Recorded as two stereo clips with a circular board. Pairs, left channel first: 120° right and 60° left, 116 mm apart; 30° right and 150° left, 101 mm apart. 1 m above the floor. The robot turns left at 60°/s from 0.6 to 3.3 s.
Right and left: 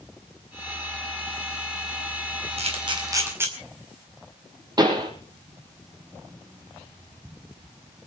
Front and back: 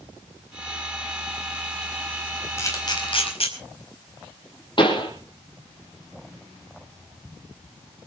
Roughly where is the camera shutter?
Ahead left.